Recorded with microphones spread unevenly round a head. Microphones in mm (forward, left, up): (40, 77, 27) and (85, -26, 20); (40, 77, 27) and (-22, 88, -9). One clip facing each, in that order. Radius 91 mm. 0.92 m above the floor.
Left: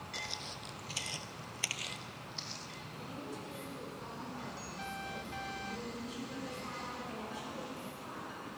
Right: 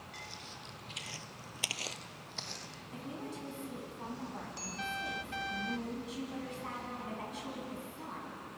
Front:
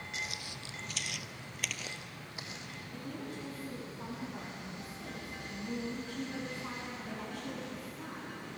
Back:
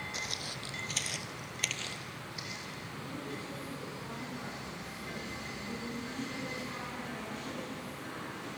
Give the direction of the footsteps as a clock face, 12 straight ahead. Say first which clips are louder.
Left 4 dB, back 1 dB; 8 o'clock.